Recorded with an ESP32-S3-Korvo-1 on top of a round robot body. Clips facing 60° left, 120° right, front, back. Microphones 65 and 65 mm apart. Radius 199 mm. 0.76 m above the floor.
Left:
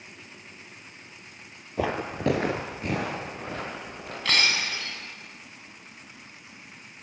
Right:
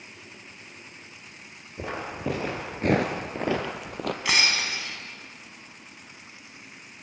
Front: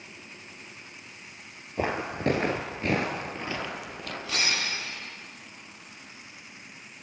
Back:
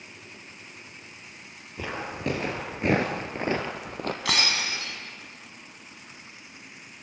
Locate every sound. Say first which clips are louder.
1.8 s footsteps: left 5 dB, front 4 dB; 55° left, 1.2 m; by 4.2 s 125° right, 1.7 m
4.2 s breaking glass: left 1 dB, back 1 dB; 160° left, 3.5 m